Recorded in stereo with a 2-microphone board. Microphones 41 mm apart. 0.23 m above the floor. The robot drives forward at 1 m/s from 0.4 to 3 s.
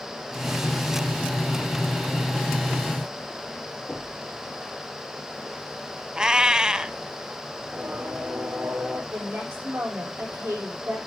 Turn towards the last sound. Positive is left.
turn(degrees=-75)  # may be behind; listen again after turning